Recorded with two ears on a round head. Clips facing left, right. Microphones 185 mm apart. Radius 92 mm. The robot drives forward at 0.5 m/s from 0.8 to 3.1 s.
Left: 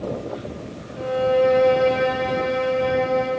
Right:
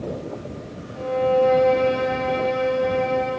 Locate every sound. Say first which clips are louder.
1.0 s a violin: even; 15° left (ahead or behind), 0.8 m; by 3.3 s 10° left (ahead or behind), 1.7 m